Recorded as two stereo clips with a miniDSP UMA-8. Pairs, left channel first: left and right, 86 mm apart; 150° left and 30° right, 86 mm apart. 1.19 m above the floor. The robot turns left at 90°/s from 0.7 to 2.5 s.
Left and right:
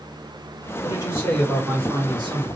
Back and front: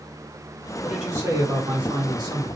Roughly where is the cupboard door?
No cupboard door in this recording.